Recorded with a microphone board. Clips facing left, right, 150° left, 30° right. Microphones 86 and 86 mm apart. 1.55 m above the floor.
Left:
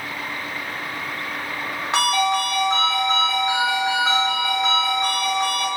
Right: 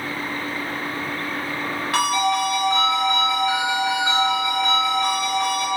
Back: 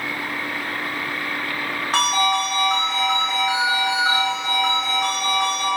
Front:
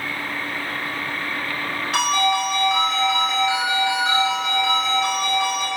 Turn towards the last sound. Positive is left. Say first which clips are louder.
# left 1 dB, even
turn(degrees=140)